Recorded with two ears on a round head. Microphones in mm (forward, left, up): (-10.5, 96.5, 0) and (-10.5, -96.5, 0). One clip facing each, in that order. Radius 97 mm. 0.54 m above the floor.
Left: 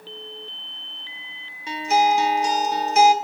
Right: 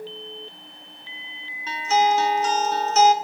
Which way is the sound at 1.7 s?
10° left (ahead or behind).